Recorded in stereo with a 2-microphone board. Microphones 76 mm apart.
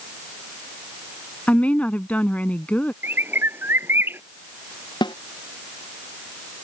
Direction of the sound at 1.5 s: 20° left (ahead or behind).